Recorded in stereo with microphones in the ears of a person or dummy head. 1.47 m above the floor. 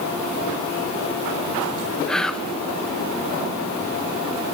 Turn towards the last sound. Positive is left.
turn(degrees=0)  # may be behind; listen again after turning